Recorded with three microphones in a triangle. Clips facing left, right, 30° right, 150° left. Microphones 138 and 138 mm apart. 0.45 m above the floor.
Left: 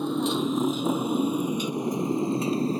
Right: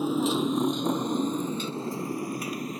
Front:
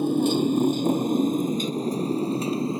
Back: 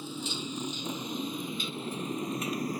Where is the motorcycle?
5° right; by 2.8 s 35° left.